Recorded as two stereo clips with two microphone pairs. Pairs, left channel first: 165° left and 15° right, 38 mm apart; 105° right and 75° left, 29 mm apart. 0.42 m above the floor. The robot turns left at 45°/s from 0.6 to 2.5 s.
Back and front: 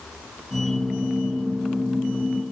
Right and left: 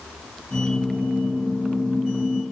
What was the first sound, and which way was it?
Only background noise.